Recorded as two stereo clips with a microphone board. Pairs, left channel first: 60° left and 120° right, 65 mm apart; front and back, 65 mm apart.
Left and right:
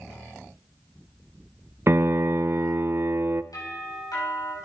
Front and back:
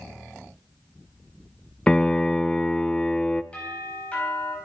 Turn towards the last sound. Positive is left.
turn(degrees=70)